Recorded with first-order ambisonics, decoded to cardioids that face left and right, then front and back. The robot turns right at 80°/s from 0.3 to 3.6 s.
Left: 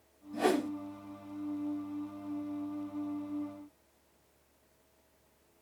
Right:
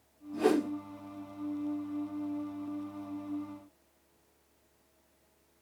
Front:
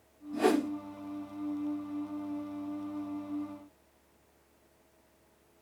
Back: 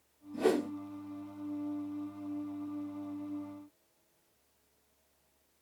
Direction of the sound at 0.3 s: 25° left.